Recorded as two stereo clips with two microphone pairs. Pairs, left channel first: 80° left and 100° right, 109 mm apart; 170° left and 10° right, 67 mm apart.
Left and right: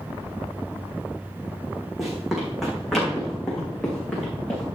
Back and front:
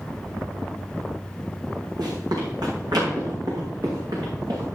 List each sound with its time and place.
2.0 s running footsteps: 10° right, 4.5 m; by 4.7 s straight ahead, 5.5 m